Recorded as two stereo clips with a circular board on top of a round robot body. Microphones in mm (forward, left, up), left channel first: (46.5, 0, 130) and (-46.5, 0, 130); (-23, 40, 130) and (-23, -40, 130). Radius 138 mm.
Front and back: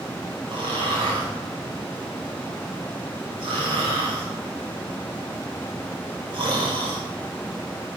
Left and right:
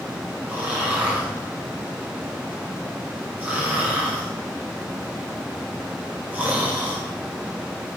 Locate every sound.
0.5 s snoring: 155° right, 5.5 m